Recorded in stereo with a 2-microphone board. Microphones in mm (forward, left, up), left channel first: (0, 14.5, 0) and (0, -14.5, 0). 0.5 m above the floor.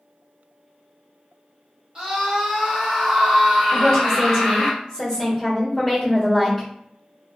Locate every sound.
1.9 s a scream: 25° right (ahead or behind), 1.2 m; by 4.7 s centre (ahead or behind), 1.7 m
3.7 s a woman speaking: 10° left (ahead or behind), 1.5 m